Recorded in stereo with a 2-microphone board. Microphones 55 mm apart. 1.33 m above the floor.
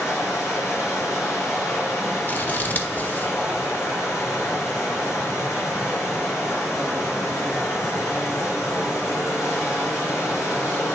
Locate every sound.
0.0 s running water: 65° left (ahead or behind), 4.5 m
2.3 s scissors: 35° left (ahead or behind), 1.0 m